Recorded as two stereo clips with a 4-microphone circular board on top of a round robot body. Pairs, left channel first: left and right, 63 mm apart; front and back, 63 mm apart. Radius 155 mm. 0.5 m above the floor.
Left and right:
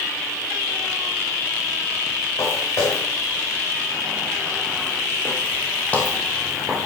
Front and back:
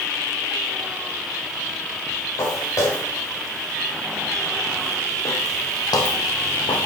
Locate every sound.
2.4 s footsteps: 45° left, 4.5 m; by 6.9 s 15° right, 0.9 m